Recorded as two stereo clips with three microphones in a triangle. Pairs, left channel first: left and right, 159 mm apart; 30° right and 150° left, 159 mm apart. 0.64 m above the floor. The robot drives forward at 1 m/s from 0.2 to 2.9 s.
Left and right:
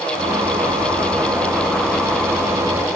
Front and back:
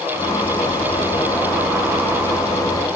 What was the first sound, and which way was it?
Only background noise.